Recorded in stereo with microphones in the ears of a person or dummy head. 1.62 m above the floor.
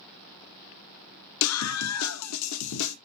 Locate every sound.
1.4 s a scream: 80° left, 0.9 m